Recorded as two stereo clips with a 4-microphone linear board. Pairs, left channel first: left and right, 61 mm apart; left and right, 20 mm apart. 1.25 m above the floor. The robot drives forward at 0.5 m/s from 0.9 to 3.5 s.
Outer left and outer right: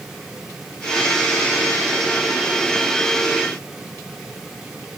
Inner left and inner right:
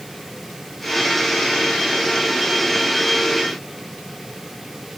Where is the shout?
No shout in this recording.